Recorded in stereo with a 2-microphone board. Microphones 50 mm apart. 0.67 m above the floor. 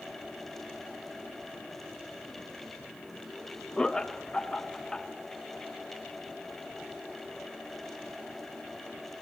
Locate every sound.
3.8 s laughter: 15° left (ahead or behind), 0.9 m